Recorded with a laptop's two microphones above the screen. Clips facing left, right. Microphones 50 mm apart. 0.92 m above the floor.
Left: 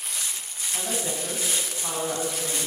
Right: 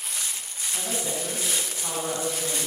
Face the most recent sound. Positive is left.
turn(degrees=15)  # may be behind; listen again after turning